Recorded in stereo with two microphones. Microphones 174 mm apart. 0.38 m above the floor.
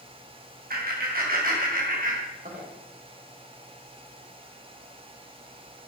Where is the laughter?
60° right (ahead or behind), 3 m; by 2.6 s 50° right (ahead or behind), 1.9 m.